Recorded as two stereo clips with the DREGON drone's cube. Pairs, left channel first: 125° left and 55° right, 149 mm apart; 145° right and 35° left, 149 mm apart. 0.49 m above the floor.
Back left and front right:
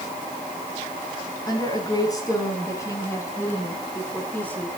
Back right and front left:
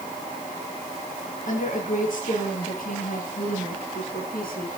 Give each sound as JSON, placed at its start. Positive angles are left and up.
{"t": 1.5, "sound": "a woman speaking", "azimuth_deg": -175, "distance_m": 5.5}